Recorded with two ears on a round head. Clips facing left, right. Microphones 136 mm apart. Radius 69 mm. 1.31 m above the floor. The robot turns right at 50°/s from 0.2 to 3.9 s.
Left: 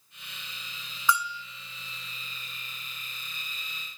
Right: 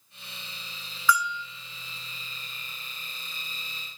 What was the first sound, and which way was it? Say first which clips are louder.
A bell: right 2 dB; 20° left (ahead or behind).